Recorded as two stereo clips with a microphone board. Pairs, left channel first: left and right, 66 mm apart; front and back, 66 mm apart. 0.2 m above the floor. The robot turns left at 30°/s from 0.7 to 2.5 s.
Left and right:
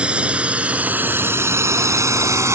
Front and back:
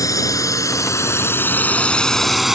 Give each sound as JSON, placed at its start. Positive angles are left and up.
{"t": 0.0, "sound": "a drone", "azimuth_deg": -20}